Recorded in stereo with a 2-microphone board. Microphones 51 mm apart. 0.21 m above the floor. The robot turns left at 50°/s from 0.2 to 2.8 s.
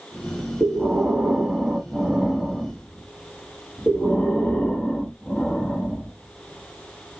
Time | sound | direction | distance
0.6 | breathing | 105° right | 1.3 m